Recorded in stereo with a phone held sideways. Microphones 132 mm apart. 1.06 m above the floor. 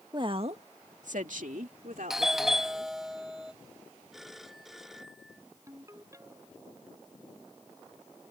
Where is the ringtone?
25° right (ahead or behind).